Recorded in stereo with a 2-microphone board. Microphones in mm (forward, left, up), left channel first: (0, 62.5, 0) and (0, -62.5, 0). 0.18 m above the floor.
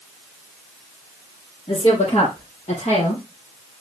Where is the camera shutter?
No camera shutter in this recording.